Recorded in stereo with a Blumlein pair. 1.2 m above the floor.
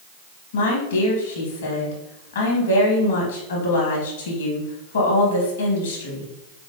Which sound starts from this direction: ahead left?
A woman speaking, at 0.5 s.